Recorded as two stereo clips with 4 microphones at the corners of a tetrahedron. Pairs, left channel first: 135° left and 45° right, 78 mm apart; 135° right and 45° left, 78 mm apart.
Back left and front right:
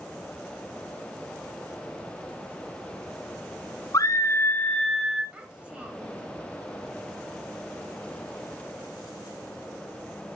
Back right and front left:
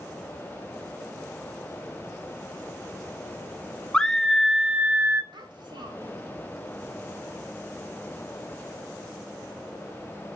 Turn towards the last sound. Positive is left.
turn(degrees=35)